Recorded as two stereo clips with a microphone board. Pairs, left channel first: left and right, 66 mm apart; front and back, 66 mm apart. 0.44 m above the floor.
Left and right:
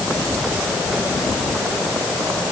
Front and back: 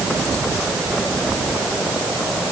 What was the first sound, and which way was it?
Only background noise.